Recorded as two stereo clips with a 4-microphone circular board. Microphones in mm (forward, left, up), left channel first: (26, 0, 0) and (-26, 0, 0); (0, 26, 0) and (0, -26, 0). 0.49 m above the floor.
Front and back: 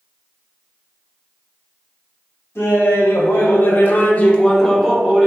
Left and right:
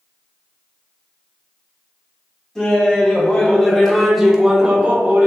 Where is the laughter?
20° left, 2 m; by 5.3 s 125° right, 1.0 m.